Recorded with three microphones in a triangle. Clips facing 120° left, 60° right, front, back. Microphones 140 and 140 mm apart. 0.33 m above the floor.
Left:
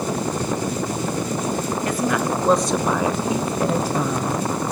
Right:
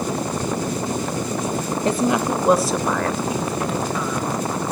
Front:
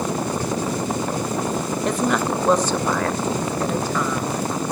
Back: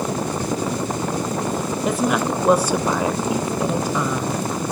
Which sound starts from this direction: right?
A woman speaking, at 1.9 s.